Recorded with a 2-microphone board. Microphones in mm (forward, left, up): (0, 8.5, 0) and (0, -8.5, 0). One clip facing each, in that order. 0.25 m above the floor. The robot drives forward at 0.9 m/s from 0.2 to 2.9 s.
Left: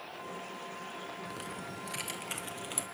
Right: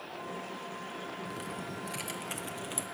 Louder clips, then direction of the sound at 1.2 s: Right 2 dB; 10° left (ahead or behind).